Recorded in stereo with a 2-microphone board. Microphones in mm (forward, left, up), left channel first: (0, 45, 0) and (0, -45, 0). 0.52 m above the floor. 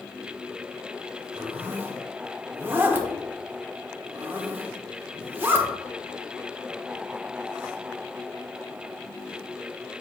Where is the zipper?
25° right (ahead or behind), 1.0 m.